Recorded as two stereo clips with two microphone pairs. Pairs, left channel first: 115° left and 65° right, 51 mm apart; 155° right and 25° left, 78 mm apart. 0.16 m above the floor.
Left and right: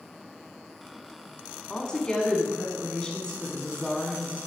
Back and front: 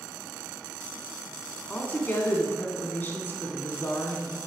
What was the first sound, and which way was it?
A woman speaking, 170° left.